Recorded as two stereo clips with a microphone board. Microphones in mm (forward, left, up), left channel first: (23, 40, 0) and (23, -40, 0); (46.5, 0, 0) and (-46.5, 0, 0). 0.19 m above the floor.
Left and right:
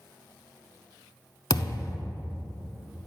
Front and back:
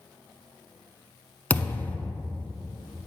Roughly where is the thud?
Ahead left.